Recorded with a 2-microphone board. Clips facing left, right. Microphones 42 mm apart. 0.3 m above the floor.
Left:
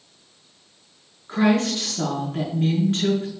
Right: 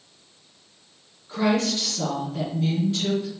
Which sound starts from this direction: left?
A woman speaking, at 1.3 s.